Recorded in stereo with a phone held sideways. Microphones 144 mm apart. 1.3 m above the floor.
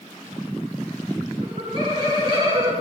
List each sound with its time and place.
1.4 s laughter: 35° right (ahead or behind), 4.5 m